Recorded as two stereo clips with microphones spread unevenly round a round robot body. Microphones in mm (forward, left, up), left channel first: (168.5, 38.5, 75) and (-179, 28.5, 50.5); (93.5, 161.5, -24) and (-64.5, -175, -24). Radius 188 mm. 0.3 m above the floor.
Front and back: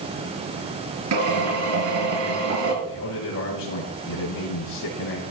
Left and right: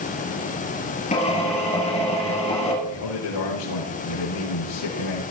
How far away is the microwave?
No microwave in this recording.